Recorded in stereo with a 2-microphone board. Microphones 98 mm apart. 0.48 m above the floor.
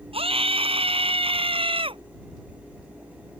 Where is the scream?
70° right (ahead or behind); by 2.0 s 60° right (ahead or behind).